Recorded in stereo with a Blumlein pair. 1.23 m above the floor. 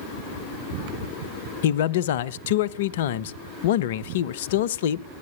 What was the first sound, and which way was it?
A man speaking, 55° left.